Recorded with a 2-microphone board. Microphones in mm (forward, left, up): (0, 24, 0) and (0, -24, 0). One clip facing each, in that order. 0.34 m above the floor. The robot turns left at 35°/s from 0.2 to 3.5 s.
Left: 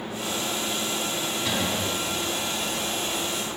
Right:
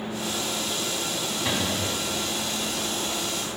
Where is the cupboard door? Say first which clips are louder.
Even; 25° right (ahead or behind), 1.7 m; by 1.9 s 10° right (ahead or behind), 1.7 m.